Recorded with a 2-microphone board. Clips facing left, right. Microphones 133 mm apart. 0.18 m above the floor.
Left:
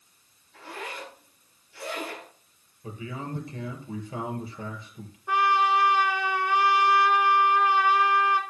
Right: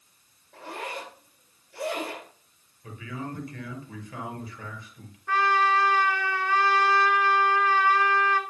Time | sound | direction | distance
0.5 | a zipper | 65° right (ahead or behind) | 6.5 m
2.8 | a man speaking | 30° left (ahead or behind) | 3.5 m
5.3 | a trumpet | 20° left (ahead or behind) | 1.4 m